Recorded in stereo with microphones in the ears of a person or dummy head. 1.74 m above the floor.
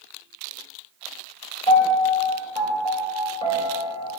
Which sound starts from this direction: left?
A piano, at 1.7 s.